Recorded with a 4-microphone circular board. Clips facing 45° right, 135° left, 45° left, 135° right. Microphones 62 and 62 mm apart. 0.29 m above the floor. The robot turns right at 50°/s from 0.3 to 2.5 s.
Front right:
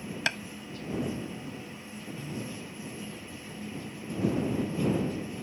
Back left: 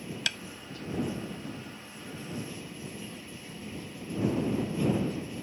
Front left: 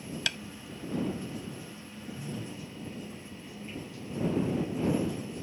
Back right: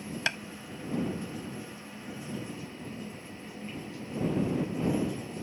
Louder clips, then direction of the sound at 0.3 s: Front right 5 dB, back right 4 dB; 90° right.